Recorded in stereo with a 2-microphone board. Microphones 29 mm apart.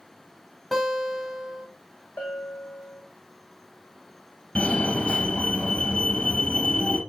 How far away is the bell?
About 3 m.